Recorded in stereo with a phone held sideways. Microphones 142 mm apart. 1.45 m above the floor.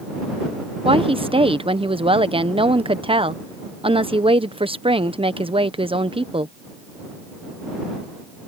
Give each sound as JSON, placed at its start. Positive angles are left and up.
{"t": 0.8, "sound": "a woman speaking", "side_deg": -40}